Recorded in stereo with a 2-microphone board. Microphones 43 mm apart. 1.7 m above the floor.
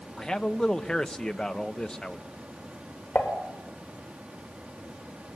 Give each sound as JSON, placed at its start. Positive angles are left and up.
{"t": 0.2, "sound": "a man speaking", "side_deg": 20, "distance_m": 1.1}
{"t": 3.1, "sound": "dishes clattering", "side_deg": 55, "distance_m": 4.0}